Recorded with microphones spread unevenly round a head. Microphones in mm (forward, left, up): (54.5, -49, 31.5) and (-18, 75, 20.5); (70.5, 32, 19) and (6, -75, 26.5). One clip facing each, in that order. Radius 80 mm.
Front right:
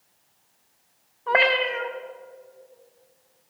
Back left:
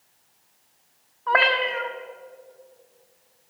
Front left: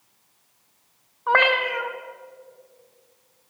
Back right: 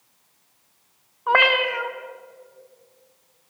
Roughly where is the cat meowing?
Ahead right.